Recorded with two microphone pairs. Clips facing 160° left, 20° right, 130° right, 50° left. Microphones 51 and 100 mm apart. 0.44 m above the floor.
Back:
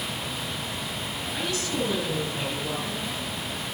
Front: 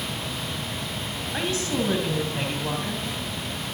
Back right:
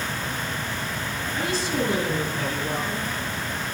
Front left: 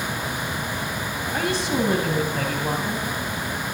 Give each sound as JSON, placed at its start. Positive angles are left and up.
{"t": 1.3, "sound": "a woman speaking", "azimuth_deg": 35, "distance_m": 2.5}